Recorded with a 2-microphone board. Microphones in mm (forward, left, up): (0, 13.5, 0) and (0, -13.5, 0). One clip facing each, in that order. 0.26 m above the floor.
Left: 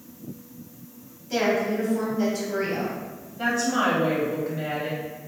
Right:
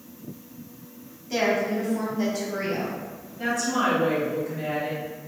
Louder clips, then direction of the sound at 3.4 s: Left 1 dB; 30° left (ahead or behind).